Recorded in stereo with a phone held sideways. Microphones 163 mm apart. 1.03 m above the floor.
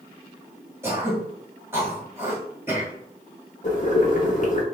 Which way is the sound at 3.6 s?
50° left (ahead or behind).